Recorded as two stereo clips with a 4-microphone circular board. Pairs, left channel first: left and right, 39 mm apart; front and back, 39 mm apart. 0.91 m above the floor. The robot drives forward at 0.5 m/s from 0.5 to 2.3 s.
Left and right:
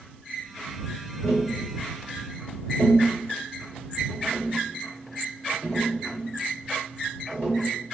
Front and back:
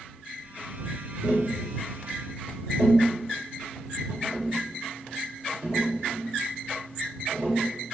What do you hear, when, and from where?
1.2 s tapping: 130° left, 1.5 m; by 7.6 s 145° left, 1.8 m